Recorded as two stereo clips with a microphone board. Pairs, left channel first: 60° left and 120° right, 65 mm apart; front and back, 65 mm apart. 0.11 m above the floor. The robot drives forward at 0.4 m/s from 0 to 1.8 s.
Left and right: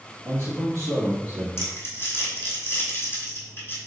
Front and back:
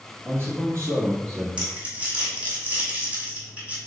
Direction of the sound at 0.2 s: 150° right.